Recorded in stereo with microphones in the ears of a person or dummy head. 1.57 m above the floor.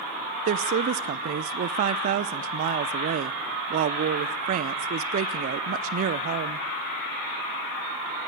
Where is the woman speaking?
40° right (ahead or behind), 0.6 m.